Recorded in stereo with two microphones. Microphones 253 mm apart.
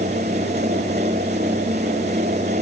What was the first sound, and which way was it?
Only background noise.